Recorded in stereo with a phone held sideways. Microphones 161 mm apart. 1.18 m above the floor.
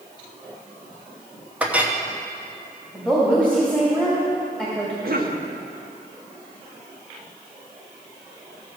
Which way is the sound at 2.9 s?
5° right (ahead or behind).